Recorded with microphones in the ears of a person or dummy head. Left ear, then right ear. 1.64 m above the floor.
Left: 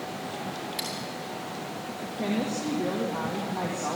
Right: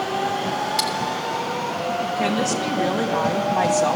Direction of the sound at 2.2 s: 75° right (ahead or behind).